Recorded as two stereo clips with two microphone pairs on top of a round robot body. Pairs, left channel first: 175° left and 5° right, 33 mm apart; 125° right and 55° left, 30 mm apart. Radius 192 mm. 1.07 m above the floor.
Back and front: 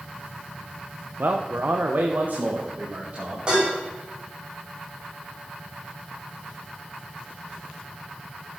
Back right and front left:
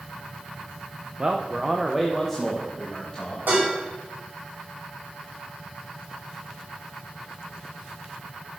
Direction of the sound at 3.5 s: 55° left.